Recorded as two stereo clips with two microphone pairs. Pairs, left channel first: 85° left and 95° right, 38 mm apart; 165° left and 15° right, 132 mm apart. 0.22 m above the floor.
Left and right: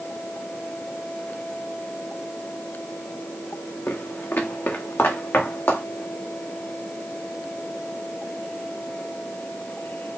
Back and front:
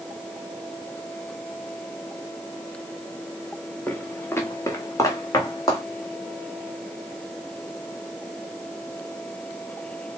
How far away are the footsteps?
About 1.2 m.